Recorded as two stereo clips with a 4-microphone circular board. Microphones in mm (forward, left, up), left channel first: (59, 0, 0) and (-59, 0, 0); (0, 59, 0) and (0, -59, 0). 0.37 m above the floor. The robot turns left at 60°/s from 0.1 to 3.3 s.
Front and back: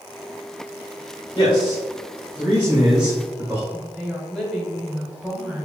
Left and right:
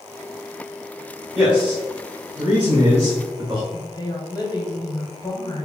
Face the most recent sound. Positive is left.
turn(degrees=95)